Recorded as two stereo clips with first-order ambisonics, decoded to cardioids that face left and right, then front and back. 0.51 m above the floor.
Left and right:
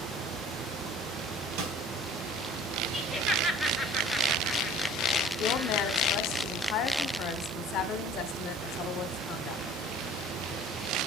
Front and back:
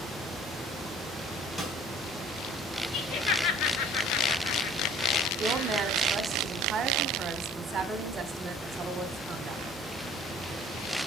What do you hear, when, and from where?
1.6 s a snare drum: 80° right, 3.5 m
2.9 s laughter: 10° right, 1.9 m
5.4 s a woman speaking: 120° left, 1.5 m